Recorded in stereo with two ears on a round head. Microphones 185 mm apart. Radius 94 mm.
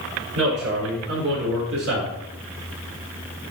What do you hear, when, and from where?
0.3 s a man speaking: 80° right, 5.5 m; by 2.1 s 75° right (ahead or behind), 4.5 m